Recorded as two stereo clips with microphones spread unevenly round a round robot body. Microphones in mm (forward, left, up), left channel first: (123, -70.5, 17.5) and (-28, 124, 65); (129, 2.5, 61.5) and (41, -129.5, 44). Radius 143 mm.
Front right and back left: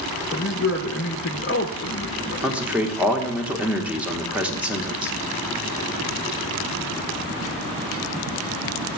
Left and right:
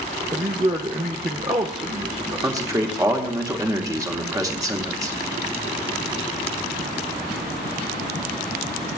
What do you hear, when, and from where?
0.3 s a man speaking: 75° right, 0.9 m
2.4 s a man speaking: 130° right, 1.0 m